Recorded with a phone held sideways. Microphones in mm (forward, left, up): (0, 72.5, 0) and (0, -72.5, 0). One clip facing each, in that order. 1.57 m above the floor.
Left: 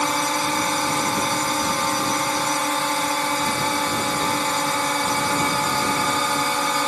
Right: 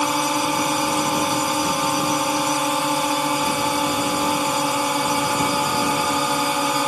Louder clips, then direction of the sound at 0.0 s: Right 2 dB; 10° right (ahead or behind).